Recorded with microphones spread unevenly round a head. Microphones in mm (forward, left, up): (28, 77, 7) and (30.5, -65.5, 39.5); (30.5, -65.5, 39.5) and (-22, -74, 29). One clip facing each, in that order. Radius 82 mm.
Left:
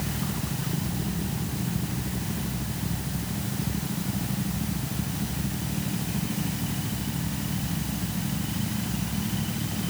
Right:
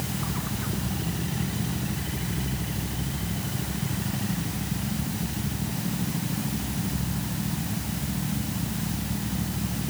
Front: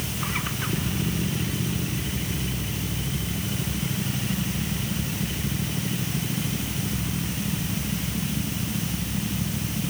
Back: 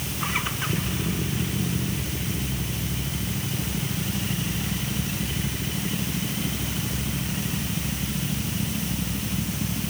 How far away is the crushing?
No crushing in this recording.